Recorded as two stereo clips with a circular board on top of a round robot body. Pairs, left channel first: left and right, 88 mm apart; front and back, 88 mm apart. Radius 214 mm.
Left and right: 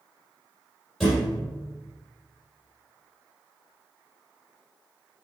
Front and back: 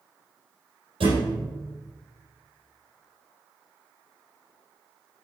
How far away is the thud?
About 4 m.